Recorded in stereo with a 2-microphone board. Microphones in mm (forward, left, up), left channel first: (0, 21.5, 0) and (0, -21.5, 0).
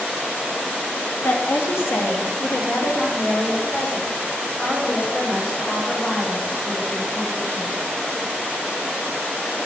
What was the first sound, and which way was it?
A woman speaking, 60° left (ahead or behind).